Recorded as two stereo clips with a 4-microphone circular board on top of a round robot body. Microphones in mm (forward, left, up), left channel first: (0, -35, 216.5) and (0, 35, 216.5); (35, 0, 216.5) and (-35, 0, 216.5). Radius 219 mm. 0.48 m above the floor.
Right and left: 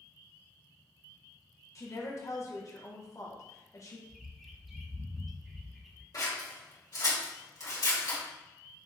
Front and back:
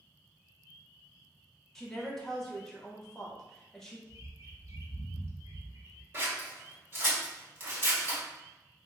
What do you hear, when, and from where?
1.8 s a woman speaking: 80° right, 1.3 m
4.1 s a bird: 175° left, 1.0 m
6.1 s scissors: 120° right, 1.8 m